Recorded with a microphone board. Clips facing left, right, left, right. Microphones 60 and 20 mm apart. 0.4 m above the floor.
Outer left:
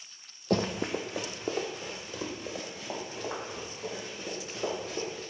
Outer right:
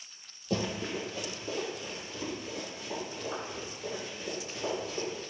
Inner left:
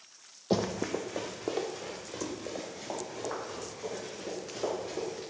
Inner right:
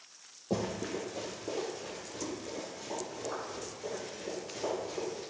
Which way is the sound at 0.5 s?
55° left (ahead or behind).